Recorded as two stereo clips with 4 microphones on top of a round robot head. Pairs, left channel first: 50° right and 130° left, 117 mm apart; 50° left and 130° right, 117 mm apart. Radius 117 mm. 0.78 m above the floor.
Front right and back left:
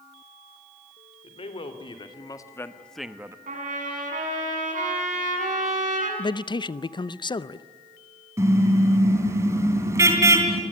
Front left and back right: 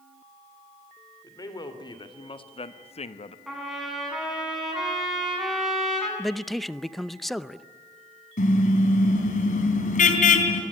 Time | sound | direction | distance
1.2 | a man speaking | 10° right | 3.5 m
3.5 | a trumpet | 140° left | 7 m
6.2 | a man speaking | 40° right | 0.8 m
8.4 | a car horn | 60° left | 3 m